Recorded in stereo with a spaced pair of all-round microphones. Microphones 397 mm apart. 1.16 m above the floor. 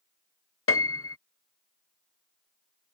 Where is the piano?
35° left (ahead or behind).